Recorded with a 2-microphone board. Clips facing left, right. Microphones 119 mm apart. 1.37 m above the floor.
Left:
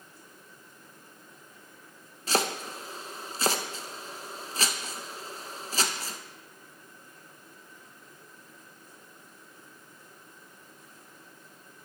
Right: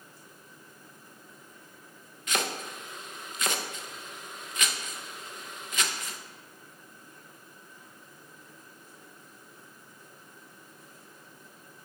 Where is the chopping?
35° left (ahead or behind), 0.6 m.